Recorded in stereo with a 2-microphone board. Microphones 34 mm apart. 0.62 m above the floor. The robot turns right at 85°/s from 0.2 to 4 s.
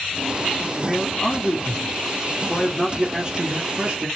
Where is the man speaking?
15° right, 1.2 m; by 4.1 s 85° right, 1.2 m.